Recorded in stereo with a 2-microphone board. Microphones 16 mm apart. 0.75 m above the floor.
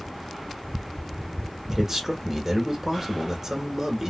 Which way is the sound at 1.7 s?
35° right (ahead or behind).